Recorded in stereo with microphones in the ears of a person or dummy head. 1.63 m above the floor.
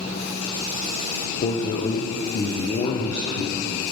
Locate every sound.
1.4 s a man speaking: 35° left (ahead or behind), 0.5 m